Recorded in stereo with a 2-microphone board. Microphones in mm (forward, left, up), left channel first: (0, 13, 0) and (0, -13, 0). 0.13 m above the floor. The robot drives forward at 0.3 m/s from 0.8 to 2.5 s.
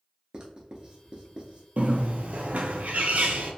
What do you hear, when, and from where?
0.3 s writing: 35° right (ahead or behind), 0.8 m; by 1.6 s 40° right (ahead or behind), 0.7 m
1.8 s a bird: 70° right (ahead or behind), 0.5 m; by 3.5 s 75° right (ahead or behind), 0.5 m